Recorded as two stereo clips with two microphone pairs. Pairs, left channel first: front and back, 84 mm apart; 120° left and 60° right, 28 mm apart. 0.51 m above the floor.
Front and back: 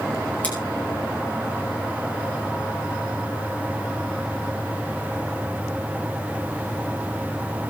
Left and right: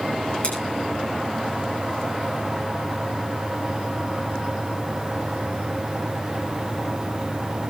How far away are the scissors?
About 8 m.